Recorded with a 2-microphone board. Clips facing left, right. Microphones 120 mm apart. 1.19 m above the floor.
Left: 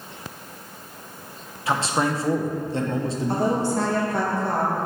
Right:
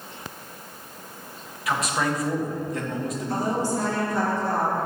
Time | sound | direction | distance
1.7 | a man speaking | 30° left (ahead or behind) | 0.7 m
3.3 | a woman speaking | 65° left (ahead or behind) | 1.6 m